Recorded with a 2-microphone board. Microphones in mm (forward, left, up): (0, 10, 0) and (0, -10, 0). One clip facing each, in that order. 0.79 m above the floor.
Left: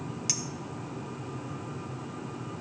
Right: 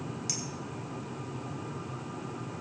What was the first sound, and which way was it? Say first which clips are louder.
A clink: left 4 dB; 30° left (ahead or behind).